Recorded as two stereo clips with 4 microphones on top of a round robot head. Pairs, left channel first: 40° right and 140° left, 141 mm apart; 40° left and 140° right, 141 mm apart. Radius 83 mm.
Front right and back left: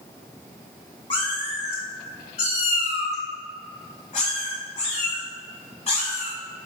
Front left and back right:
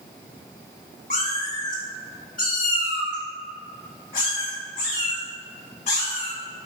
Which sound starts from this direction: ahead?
A cat meowing, at 1.1 s.